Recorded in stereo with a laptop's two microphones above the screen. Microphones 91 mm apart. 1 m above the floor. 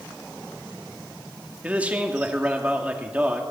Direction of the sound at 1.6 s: 15° right (ahead or behind).